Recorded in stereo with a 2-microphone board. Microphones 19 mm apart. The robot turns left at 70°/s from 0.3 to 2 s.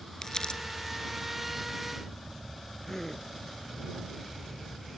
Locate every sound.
0.2 s crumpling: 30° left (ahead or behind); by 0.6 s 50° left (ahead or behind)
2.9 s a gasp: 15° left (ahead or behind)